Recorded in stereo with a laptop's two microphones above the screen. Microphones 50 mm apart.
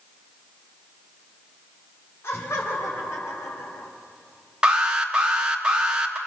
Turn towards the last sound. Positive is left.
turn(degrees=-20)  # may be behind; listen again after turning